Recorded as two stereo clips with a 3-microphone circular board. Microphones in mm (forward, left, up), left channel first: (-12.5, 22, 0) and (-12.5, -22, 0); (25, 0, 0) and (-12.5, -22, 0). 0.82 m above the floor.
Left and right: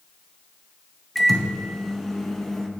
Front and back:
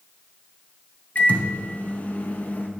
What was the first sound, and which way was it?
A microwave, 10° left.